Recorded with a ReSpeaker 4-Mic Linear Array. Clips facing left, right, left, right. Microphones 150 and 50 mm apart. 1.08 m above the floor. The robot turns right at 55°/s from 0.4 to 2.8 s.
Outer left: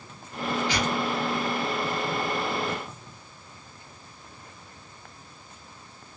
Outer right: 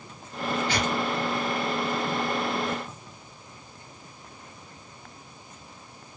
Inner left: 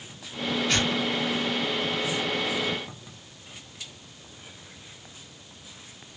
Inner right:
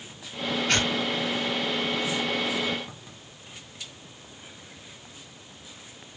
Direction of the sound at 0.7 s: 50° right (ahead or behind).